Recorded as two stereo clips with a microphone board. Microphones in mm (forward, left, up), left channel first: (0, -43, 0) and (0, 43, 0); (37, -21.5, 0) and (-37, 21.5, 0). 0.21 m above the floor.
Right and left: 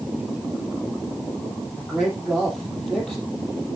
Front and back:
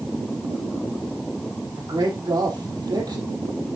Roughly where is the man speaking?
Behind.